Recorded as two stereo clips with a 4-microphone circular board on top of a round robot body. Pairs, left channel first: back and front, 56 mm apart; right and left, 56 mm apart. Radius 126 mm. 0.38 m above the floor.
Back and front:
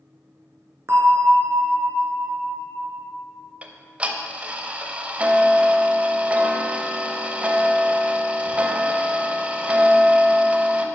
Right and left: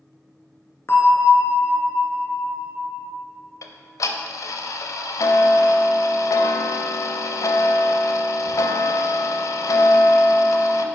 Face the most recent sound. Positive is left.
turn(degrees=-70)